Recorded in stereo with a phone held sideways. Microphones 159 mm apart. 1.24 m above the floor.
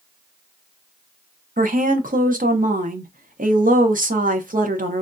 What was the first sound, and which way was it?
A woman speaking, 60° right (ahead or behind).